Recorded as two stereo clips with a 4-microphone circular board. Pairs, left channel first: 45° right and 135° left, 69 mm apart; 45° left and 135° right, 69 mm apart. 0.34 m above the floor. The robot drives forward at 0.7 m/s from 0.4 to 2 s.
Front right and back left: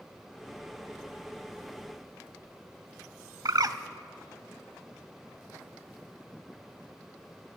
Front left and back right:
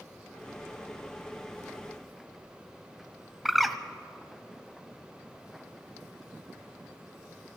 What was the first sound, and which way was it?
A bird, 135° left.